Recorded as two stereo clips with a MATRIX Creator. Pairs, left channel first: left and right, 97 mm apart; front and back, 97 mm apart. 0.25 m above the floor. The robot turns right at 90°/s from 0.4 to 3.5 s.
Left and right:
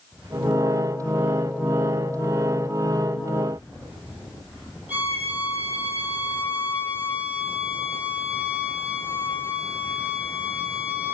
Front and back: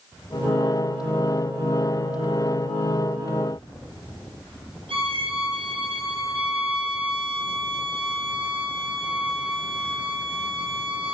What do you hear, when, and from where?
4.9 s a violin: 165° right, 7.5 m